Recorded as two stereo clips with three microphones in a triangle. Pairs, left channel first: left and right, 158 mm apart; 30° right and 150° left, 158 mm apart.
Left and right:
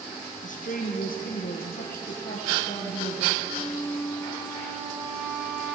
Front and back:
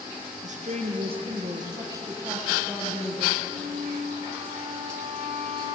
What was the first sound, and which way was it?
A woman speaking, 120° left.